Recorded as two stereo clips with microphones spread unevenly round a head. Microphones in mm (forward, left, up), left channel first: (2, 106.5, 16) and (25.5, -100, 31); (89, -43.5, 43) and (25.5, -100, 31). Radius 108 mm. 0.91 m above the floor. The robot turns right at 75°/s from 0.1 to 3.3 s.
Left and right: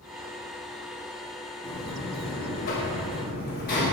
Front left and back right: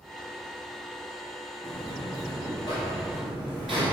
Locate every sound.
1.6 s a buzzer: 15° left, 1.9 m; by 3.8 s 135° left, 1.9 m